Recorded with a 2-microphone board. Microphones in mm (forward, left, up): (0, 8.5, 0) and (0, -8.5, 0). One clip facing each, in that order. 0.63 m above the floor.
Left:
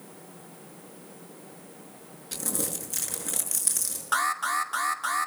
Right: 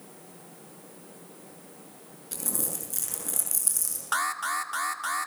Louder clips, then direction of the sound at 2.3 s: Left 2 dB; 20° left (ahead or behind).